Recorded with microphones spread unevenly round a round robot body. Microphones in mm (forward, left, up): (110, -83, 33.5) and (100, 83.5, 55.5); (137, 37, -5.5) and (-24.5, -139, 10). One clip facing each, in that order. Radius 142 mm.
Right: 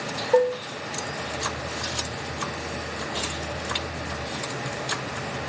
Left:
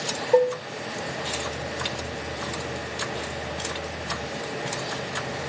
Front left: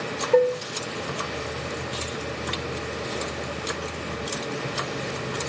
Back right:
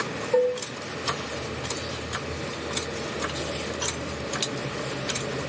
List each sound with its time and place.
0.3 s dishes clattering: 20° left, 1.7 m